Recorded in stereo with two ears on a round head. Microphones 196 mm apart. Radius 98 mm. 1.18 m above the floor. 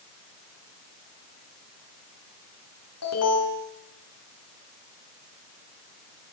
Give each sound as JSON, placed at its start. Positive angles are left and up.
{"t": 3.0, "sound": "an alarm", "side_deg": 85, "distance_m": 9.0}